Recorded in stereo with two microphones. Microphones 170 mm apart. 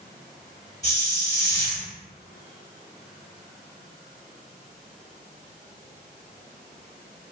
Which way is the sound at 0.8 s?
20° left (ahead or behind).